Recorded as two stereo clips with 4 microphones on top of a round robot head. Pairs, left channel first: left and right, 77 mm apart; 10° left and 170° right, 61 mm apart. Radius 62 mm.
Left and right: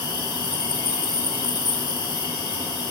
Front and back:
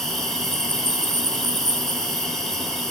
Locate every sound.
0.0 s an insect: 95° left, 3.5 m